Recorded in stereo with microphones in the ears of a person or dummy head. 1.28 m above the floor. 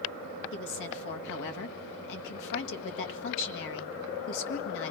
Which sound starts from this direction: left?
A woman speaking, at 0.5 s.